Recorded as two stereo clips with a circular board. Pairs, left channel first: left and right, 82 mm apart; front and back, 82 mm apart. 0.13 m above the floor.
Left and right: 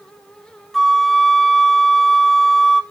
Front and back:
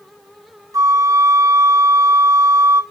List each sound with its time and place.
0.7 s a flute: 175° left, 0.7 m